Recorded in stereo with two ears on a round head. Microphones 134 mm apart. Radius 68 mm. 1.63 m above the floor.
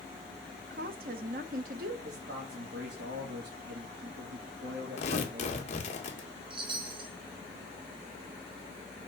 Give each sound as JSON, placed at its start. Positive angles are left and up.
{"t": 0.7, "sound": "a woman speaking", "side_deg": -65, "distance_m": 1.2}
{"t": 2.0, "sound": "a man speaking", "side_deg": -80, "distance_m": 2.0}
{"t": 5.0, "sound": "tearing paper", "side_deg": 45, "distance_m": 1.7}
{"t": 6.5, "sound": "a chime", "side_deg": -35, "distance_m": 2.0}